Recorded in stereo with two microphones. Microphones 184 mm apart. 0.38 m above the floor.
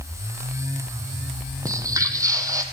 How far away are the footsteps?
About 0.7 m.